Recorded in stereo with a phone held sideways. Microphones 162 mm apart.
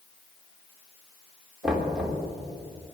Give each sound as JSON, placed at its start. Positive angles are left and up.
{"t": 1.6, "sound": "knocking", "side_deg": 0, "distance_m": 3.0}